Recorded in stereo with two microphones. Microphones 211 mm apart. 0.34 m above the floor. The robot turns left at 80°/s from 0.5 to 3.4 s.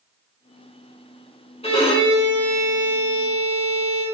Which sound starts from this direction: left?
A violin, at 1.6 s.